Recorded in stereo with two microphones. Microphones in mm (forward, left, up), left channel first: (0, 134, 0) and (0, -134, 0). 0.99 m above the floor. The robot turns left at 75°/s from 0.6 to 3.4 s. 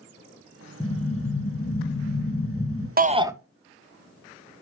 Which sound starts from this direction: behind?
An explosion, at 0.8 s.